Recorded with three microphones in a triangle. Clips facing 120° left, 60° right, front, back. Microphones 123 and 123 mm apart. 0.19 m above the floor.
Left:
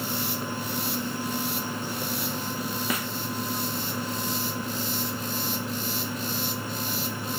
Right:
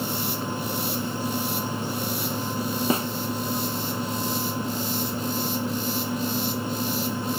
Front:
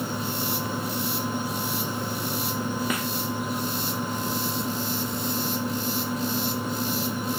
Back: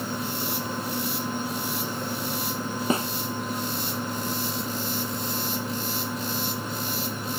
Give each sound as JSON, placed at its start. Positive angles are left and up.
{"t": 2.9, "sound": "a snare drum", "azimuth_deg": -120}